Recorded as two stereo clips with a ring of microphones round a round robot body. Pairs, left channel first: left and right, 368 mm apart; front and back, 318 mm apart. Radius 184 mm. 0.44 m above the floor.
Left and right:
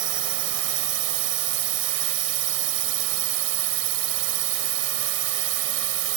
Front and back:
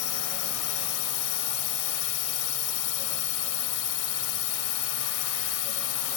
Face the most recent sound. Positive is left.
turn(degrees=-40)